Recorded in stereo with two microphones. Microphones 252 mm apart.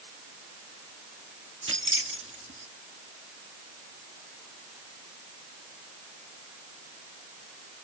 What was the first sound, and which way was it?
Keys jangling, 55° right (ahead or behind).